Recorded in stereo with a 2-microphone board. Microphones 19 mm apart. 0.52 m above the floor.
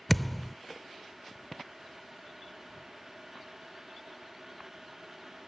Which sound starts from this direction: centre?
A thud, at 0.1 s.